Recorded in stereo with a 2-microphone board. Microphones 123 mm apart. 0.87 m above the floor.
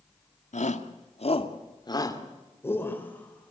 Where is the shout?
75° left (ahead or behind), 1.9 m; by 3.5 s 10° left (ahead or behind), 4.5 m.